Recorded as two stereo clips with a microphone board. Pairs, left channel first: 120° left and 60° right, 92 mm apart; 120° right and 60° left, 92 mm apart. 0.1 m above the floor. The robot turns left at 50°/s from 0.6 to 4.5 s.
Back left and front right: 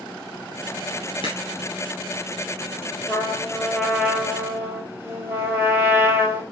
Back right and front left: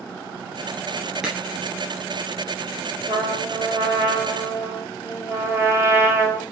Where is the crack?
145° left, 2.5 m; by 1.4 s 140° left, 2.5 m.